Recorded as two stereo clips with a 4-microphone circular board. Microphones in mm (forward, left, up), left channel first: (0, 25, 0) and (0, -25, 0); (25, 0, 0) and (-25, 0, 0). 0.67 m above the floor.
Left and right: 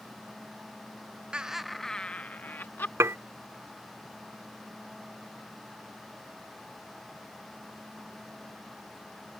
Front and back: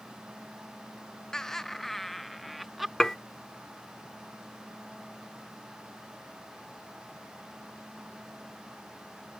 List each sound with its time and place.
1.3 s laughter: 60° right; by 2.9 s 95° left
3.0 s dishes clattering: 80° right